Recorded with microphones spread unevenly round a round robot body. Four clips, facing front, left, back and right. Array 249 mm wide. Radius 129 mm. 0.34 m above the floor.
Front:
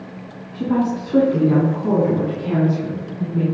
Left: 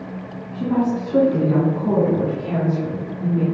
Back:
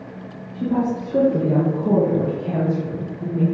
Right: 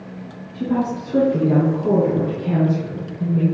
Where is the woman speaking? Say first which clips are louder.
Left 1 dB, front 2 dB; 10° right, 3.5 m; by 3.4 s 35° right, 3.5 m.